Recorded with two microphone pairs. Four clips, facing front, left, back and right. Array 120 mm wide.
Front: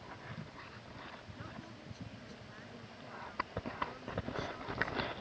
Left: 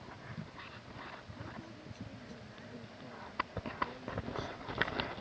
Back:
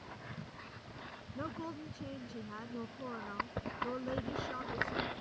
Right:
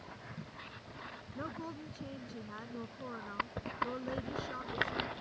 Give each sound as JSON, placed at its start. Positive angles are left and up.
{"t": 1.4, "sound": "a woman speaking", "azimuth_deg": -150}